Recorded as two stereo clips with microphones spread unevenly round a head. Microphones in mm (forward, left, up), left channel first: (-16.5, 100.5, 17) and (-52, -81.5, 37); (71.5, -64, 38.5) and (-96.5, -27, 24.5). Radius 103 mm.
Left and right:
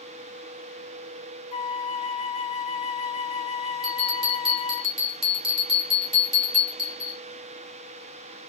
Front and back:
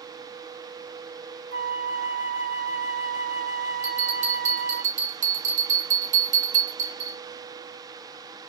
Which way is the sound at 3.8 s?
155° right.